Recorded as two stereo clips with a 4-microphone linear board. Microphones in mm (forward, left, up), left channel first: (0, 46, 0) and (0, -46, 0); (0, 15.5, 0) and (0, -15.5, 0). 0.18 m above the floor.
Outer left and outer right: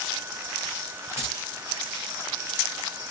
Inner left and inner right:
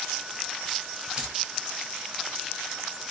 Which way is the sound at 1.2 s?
25° right (ahead or behind).